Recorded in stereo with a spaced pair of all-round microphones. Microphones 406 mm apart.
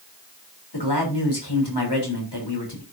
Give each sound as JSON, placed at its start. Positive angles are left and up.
{"t": 0.7, "sound": "a man speaking", "side_deg": 85, "distance_m": 3.5}